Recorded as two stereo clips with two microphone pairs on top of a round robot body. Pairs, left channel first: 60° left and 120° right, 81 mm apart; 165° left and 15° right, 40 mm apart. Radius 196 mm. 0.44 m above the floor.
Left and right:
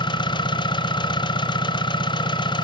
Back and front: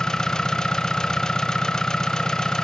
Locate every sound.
0.0 s an engine running: 90° left, 0.8 m